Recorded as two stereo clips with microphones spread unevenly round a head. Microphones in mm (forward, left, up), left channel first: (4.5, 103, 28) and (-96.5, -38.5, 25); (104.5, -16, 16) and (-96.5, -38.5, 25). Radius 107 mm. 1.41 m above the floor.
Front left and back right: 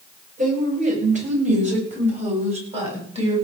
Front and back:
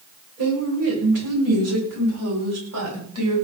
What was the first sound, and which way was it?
A woman speaking, 170° right.